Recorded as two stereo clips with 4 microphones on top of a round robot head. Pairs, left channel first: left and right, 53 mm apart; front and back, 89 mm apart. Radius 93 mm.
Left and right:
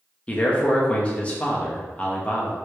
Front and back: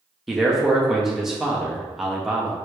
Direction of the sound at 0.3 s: 100° left.